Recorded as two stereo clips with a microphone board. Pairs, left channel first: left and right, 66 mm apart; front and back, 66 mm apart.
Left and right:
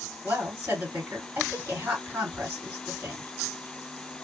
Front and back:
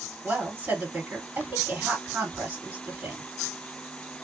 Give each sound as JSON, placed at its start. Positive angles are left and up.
{"t": 0.2, "sound": "a woman speaking", "azimuth_deg": -120, "distance_m": 1.9}